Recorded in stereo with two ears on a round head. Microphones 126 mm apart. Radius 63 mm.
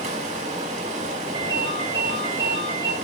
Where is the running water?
60° right (ahead or behind), 7 m.